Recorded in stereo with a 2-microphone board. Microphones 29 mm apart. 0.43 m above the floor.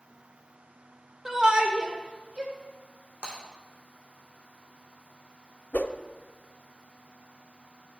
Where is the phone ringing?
I don't hear a phone ringing.